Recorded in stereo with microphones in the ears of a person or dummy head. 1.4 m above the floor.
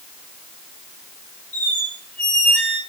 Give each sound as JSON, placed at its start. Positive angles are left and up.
{"t": 1.5, "sound": "a squeak", "side_deg": 0, "distance_m": 0.5}